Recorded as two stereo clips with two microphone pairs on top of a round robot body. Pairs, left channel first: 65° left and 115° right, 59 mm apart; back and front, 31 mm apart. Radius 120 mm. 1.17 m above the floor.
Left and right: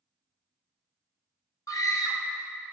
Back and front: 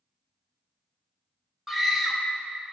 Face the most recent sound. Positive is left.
turn(degrees=85)